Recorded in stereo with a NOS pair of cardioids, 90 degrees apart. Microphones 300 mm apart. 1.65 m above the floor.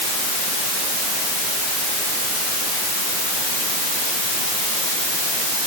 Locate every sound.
Only background noise.